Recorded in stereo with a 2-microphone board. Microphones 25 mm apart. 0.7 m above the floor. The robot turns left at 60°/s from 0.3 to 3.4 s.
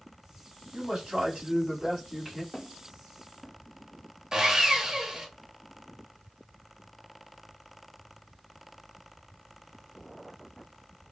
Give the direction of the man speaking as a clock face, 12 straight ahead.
3 o'clock.